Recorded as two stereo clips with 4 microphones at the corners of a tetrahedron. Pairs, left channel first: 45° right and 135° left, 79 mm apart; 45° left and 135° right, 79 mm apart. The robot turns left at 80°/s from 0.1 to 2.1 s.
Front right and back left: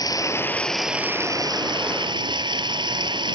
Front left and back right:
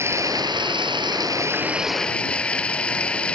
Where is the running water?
80° right; by 3.4 s 120° left.